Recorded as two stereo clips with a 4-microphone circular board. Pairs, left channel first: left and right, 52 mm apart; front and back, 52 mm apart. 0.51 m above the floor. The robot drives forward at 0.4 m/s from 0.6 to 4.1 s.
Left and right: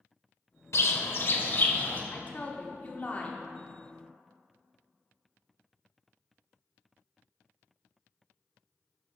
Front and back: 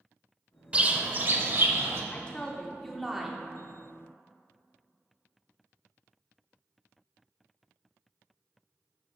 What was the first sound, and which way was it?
A bird, 115° left.